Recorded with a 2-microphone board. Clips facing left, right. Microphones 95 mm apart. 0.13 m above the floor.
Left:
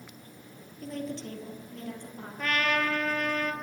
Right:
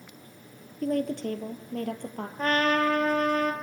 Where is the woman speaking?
55° right (ahead or behind), 3 m; by 2.3 s 60° right (ahead or behind), 3.5 m.